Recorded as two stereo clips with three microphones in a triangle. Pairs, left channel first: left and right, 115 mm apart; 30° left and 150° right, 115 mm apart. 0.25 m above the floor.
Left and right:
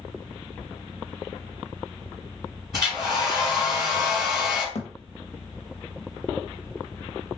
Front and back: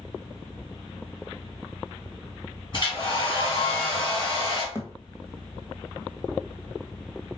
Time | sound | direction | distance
2.7 | a hair dryer | straight ahead | 2.5 m
4.8 | a thud | 100° left | 0.9 m